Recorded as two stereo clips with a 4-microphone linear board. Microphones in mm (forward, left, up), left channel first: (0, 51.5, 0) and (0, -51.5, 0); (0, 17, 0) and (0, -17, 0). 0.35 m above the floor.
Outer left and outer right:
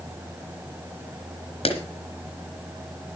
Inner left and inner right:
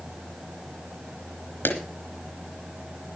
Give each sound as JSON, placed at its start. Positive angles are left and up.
{"t": 1.6, "sound": "a clap", "side_deg": 65, "distance_m": 3.5}